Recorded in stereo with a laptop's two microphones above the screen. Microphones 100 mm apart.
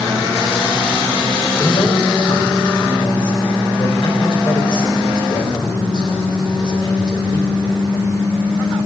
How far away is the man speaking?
About 4 m.